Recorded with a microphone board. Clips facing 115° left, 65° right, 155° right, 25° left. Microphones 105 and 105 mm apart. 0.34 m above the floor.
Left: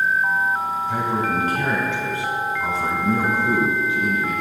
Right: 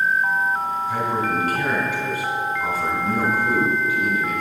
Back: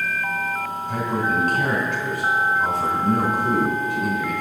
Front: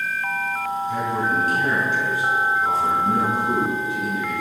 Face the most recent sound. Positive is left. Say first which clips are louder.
# left 1 dB, back 2 dB
turn(degrees=175)